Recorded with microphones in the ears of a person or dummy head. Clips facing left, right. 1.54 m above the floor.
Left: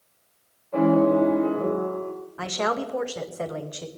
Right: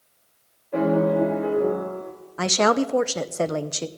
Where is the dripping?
No dripping in this recording.